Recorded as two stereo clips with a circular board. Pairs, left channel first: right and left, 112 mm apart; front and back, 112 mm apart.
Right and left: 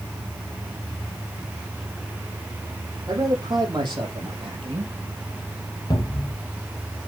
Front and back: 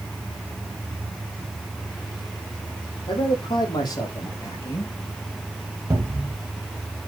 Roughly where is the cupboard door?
Behind right.